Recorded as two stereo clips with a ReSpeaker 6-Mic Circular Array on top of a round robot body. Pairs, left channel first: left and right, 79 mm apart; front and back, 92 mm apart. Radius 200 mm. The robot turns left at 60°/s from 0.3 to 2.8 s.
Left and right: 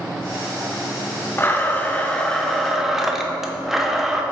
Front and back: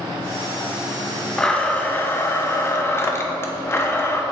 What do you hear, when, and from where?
1.4 s a blender: 75° left, 1.0 m; by 4.2 s 10° right, 1.0 m